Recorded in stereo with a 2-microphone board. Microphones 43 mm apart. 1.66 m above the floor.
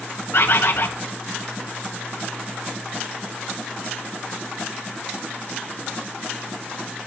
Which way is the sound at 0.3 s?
60° left (ahead or behind).